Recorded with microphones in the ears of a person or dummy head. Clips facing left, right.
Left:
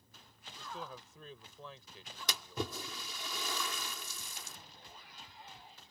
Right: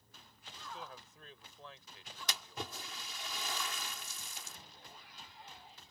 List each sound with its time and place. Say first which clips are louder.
0.6 s a man speaking: left 3 dB; 85° left
2.3 s a splash: left 6 dB; 85° left